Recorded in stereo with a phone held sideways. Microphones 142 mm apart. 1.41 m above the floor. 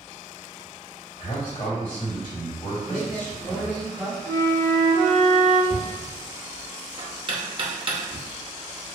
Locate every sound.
1.2 s a man speaking: 55° left (ahead or behind), 1.8 m
2.9 s a woman speaking: 5° left (ahead or behind), 0.6 m
4.3 s a flute: 55° left (ahead or behind), 1.7 m
5.7 s knocking: 40° right (ahead or behind), 0.6 m